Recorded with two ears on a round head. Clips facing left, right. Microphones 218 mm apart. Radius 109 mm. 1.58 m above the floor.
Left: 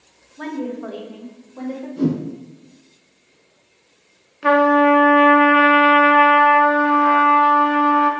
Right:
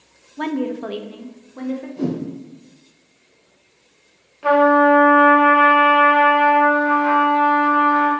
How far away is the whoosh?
About 1.3 m.